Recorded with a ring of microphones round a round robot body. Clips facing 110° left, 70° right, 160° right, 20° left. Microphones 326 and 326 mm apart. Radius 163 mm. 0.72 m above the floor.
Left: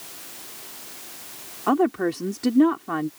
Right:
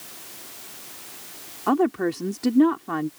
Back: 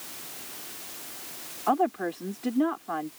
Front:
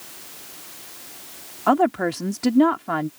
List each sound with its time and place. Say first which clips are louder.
1.7 s a woman speaking: even, front 7 dB; 20° left